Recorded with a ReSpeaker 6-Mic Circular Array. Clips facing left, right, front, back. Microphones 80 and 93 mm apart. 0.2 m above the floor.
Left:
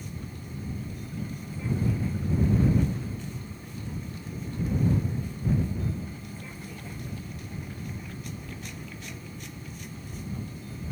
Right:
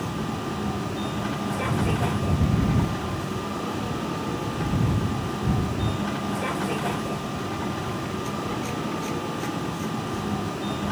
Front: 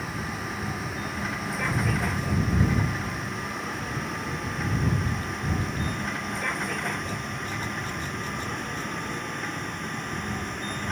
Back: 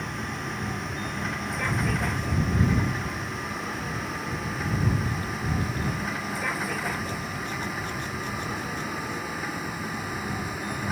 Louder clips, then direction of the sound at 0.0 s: Right 12 dB, even; 90° right.